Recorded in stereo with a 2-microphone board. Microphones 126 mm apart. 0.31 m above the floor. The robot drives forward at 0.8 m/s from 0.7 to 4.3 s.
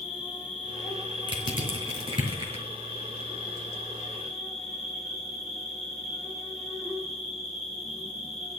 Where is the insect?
5° right (ahead or behind), 4 m.